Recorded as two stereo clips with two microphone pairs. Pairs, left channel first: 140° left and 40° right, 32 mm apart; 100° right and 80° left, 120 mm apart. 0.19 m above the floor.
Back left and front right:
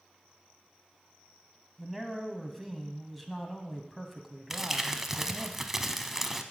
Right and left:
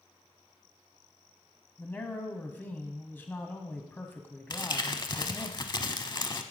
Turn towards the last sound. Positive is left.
turn(degrees=-115)